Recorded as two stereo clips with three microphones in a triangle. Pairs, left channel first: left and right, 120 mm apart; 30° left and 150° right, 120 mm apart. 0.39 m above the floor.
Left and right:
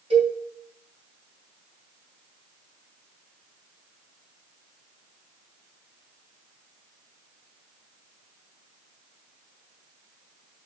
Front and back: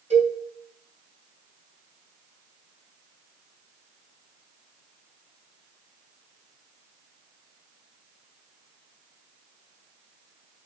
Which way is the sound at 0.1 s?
125° right.